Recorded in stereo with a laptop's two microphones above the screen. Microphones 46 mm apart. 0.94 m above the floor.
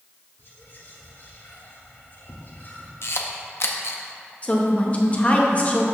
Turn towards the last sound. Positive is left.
turn(degrees=35)  # may be behind; listen again after turning